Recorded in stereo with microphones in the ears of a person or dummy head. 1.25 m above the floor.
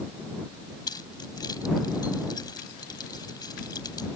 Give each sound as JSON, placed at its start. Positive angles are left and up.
{"t": 0.9, "sound": "keys jangling", "side_deg": 25}